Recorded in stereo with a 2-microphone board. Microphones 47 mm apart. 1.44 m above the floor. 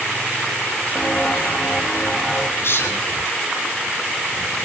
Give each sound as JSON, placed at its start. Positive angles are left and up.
{"t": 0.9, "sound": "footsteps", "side_deg": 15, "distance_m": 4.5}
{"t": 2.6, "sound": "a man speaking", "side_deg": 60, "distance_m": 9.0}